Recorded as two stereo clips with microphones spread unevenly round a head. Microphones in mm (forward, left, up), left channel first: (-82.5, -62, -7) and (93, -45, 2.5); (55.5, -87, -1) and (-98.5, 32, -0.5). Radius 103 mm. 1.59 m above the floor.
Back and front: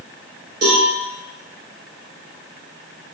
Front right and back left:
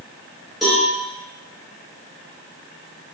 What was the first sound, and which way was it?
A cowbell, 50° left.